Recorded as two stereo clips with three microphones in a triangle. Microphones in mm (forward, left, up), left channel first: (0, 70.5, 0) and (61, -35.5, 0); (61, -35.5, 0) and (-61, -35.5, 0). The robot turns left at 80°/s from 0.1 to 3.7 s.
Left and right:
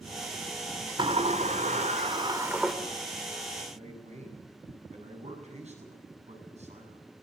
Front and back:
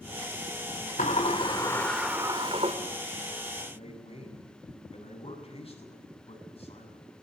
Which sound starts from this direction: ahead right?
A man speaking, at 3.7 s.